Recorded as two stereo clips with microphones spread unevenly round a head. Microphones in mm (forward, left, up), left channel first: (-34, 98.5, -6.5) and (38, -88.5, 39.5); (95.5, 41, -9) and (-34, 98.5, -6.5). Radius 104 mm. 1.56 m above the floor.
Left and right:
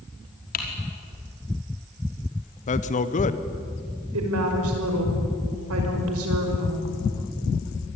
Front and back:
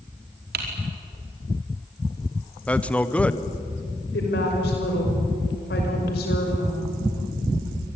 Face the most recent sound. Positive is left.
turn(degrees=-50)